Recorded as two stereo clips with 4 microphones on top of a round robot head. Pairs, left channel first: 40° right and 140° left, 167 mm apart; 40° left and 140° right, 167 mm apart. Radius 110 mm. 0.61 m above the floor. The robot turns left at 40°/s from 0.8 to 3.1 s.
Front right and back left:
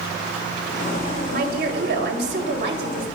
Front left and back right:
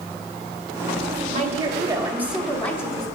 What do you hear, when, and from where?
1.3 s a woman speaking: straight behind, 3 m; by 3.1 s 105° left, 3 m